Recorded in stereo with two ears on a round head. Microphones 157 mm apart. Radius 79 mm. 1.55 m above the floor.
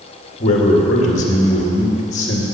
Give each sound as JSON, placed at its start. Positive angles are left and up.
{"t": 0.4, "sound": "a man speaking", "side_deg": 40, "distance_m": 2.0}